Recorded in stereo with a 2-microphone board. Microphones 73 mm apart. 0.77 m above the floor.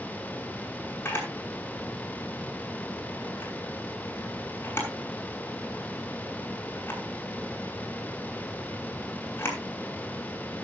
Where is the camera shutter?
30° left (ahead or behind), 6.5 m.